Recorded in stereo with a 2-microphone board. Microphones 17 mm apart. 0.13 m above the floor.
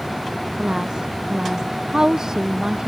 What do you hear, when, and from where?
0.6 s a woman speaking: 40° right (ahead or behind); by 2.9 s 35° right (ahead or behind)